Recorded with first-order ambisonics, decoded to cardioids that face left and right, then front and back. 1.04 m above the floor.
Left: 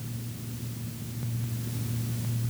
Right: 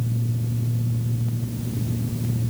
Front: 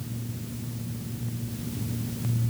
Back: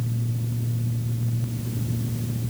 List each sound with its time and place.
Only background noise.